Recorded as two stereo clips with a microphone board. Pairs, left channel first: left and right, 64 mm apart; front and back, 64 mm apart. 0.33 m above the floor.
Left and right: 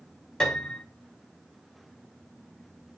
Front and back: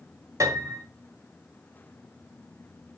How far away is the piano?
About 3 m.